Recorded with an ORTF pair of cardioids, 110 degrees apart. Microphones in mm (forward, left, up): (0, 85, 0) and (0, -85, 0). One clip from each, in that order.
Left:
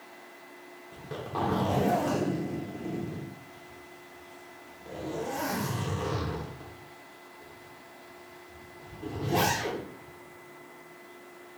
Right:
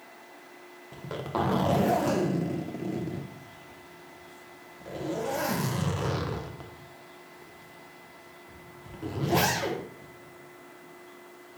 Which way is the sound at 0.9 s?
35° right.